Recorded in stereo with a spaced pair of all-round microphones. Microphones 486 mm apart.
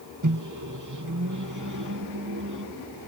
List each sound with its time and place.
0.2 s a microwave: 40° right (ahead or behind)